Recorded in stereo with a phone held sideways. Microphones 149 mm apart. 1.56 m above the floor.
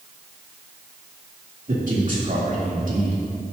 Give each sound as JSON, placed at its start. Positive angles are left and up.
{"t": 1.7, "sound": "a man speaking", "side_deg": -65, "distance_m": 3.0}